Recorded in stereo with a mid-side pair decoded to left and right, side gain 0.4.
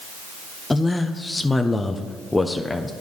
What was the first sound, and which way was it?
A man speaking, 20° left.